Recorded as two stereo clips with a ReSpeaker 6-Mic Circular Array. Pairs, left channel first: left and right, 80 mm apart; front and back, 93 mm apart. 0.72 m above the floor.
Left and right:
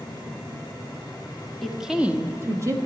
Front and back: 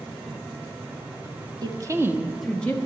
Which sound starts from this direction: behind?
A woman speaking, at 1.6 s.